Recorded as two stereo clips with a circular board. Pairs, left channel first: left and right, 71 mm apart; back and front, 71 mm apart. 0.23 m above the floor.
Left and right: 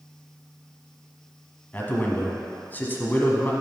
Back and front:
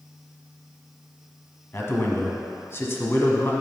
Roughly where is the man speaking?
Behind left.